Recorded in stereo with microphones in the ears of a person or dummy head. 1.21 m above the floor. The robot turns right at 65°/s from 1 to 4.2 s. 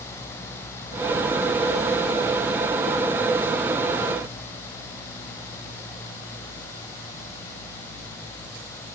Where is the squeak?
I don't hear a squeak.